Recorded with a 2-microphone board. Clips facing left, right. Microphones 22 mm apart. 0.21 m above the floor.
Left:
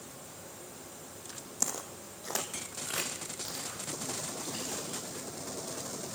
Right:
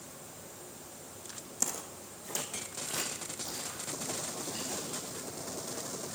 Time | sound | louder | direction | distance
1.6 | footsteps | left 1 dB | 10° left (ahead or behind) | 0.6 m